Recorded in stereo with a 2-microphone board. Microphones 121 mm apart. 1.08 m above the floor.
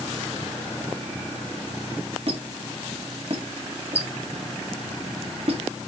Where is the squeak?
50° right (ahead or behind), 1.5 m.